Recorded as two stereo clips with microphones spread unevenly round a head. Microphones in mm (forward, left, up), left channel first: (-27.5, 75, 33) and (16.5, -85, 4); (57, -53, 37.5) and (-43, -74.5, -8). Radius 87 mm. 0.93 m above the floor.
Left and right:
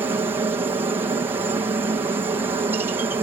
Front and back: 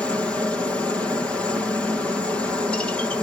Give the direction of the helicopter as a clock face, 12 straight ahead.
4 o'clock.